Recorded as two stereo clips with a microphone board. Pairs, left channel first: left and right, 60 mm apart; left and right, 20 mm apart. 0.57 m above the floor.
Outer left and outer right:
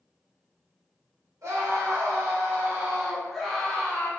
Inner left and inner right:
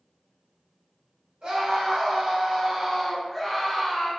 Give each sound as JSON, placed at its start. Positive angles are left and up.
{"t": 1.4, "sound": "a scream", "side_deg": -60, "distance_m": 1.6}